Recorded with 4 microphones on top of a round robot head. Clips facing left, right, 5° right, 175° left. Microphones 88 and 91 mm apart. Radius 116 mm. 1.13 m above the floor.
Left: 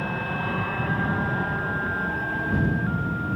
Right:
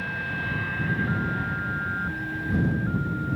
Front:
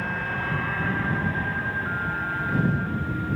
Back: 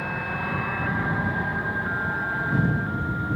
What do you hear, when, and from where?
0.0 s an aircraft: 100° left; by 3.4 s 110° left